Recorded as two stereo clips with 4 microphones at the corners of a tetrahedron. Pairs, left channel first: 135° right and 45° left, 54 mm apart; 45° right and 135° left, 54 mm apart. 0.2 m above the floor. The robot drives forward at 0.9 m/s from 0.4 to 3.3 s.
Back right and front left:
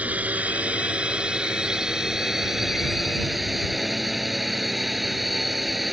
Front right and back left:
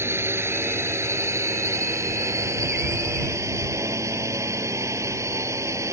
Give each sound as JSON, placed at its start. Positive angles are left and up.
{"t": 0.0, "sound": "a drone", "azimuth_deg": 105}